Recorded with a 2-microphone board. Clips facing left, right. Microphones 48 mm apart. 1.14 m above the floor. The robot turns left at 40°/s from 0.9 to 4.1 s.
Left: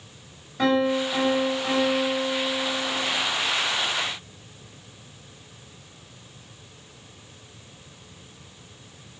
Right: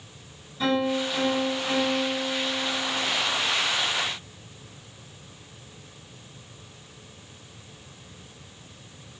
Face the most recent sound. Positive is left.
turn(degrees=-45)